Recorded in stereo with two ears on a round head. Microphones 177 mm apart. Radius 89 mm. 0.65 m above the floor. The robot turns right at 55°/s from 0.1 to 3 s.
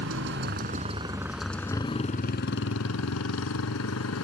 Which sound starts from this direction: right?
A motorcycle, at 0.0 s.